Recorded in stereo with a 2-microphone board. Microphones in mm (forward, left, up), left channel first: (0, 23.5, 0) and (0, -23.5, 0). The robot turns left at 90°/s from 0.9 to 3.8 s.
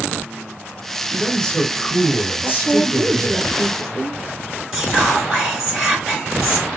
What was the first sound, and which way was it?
A man speaking, 170° right.